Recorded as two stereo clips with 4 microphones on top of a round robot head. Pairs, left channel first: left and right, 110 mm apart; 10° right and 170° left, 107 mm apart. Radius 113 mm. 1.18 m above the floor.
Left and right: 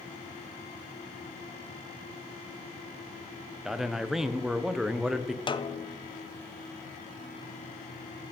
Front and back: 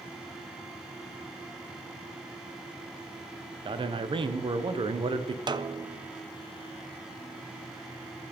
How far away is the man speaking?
About 0.9 m.